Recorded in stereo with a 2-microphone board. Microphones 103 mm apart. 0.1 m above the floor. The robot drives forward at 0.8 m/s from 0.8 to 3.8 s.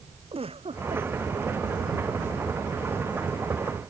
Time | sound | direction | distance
0.3 | a giggle | 65° right (ahead or behind) | ?